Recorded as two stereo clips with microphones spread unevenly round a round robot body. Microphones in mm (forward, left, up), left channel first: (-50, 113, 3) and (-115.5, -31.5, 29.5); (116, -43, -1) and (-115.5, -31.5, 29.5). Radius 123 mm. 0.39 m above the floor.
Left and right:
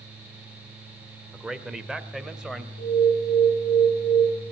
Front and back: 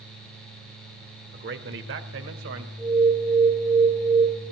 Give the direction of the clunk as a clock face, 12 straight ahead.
No clunk in this recording.